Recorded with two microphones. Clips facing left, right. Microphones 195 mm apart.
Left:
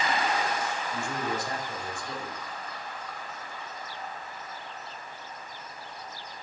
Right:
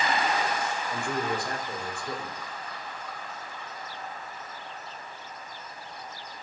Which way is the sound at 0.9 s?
75° right (ahead or behind).